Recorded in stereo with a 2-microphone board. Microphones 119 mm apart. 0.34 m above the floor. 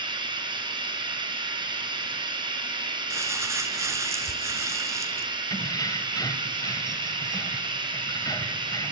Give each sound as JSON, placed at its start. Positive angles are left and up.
{"t": 0.0, "sound": "running water", "side_deg": -40, "distance_m": 3.5}
{"t": 3.1, "sound": "crumpling", "side_deg": -25, "distance_m": 1.0}
{"t": 5.5, "sound": "keys jangling", "side_deg": 35, "distance_m": 1.2}